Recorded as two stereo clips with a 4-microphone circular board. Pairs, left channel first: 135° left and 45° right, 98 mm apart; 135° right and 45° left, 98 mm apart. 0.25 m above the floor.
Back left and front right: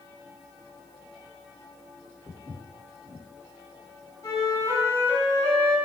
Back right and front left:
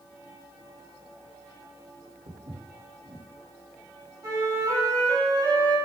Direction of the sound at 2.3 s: 65° left.